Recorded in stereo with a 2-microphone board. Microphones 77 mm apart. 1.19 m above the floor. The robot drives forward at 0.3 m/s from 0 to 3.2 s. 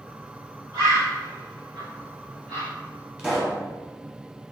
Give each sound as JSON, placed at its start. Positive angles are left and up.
{"t": 0.7, "sound": "a bird", "side_deg": -50, "distance_m": 1.9}
{"t": 3.2, "sound": "a pop", "side_deg": -15, "distance_m": 1.1}